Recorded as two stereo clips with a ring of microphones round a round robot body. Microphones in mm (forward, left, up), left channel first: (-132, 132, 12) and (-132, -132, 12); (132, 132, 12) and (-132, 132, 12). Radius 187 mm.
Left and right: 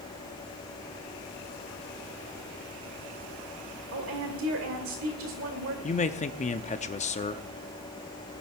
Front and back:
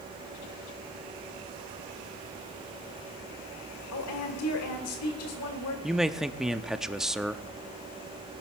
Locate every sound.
3.9 s a woman speaking: 40° right, 1.7 m
5.8 s a man speaking: 95° left, 0.6 m